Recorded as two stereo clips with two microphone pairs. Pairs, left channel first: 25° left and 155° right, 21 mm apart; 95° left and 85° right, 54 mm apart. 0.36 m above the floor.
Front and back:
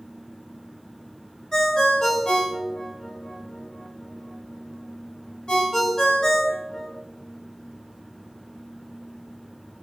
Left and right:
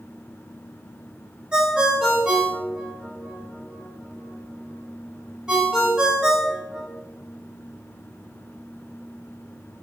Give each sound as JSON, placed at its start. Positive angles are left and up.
{"t": 1.5, "sound": "a ringtone", "azimuth_deg": -15, "distance_m": 0.8}